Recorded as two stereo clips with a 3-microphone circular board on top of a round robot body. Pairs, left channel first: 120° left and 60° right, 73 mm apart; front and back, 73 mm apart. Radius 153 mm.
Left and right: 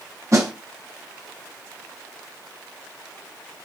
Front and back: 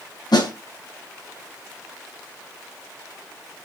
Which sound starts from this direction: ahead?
A snare drum, at 0.3 s.